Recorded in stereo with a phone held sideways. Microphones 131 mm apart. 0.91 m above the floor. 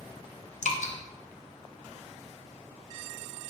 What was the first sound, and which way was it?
Dripping, 65° left (ahead or behind).